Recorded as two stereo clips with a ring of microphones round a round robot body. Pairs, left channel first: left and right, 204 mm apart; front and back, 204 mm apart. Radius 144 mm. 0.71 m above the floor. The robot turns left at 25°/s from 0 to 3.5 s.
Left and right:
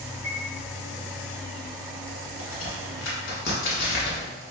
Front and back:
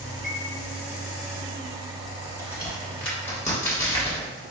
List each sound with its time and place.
0.2 s a chime: 160° left, 1.2 m; by 0.4 s 155° left, 1.2 m
2.4 s a crack: 100° left, 1.5 m; by 4.3 s 75° left, 1.5 m